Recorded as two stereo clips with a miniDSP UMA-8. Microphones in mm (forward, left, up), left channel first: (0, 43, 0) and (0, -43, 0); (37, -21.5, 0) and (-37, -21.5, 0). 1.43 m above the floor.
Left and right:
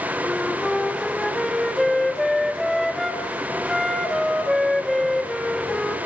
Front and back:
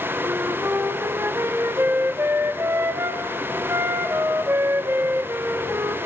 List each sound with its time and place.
0.2 s a flute: straight behind, 1.0 m